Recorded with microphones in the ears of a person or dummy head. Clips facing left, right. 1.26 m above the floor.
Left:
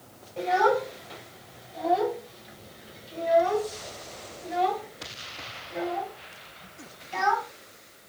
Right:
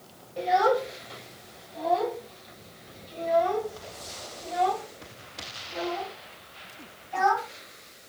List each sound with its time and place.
0.4 s a child speaking: 5° right (ahead or behind), 5.5 m; by 7.5 s 40° left (ahead or behind), 7 m